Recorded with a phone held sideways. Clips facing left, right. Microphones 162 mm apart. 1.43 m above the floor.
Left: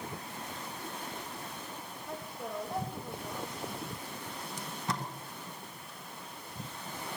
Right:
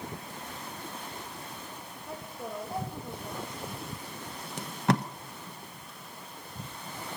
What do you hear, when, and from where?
2.1 s a woman speaking: 5° right (ahead or behind), 1.7 m
4.6 s tape being pulled: 70° right (ahead or behind), 1.1 m